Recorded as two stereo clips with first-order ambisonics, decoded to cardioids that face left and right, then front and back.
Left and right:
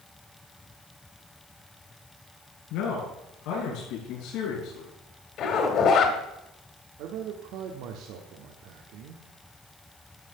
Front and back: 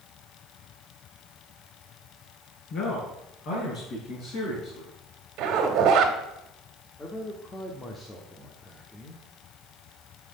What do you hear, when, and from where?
2.7 s a man speaking: 55° left, 5.5 m; by 4.9 s 45° left, 5.5 m
5.4 s a zipper: 140° left, 2.0 m
7.0 s a man speaking: 75° right, 1.2 m